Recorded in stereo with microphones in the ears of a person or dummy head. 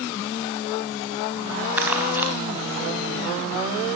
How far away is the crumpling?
About 4 m.